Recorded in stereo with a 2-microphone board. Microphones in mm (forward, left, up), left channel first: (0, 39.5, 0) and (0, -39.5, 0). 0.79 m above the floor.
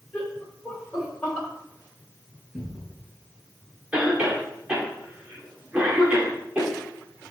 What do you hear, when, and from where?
0.1 s laughter: 10° left (ahead or behind), 2.5 m; by 1.5 s centre (ahead or behind), 3.5 m
2.5 s a cupboard door: 10° left (ahead or behind), 3.5 m
3.9 s a cough: 15° right (ahead or behind), 1.7 m